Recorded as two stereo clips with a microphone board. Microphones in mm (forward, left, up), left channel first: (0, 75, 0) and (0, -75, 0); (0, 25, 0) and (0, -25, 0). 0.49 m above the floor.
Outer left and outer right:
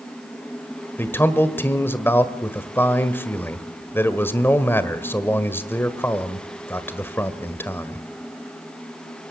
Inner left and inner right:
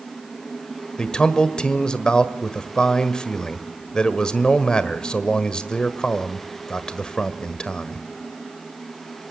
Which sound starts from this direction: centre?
A man speaking, at 1.0 s.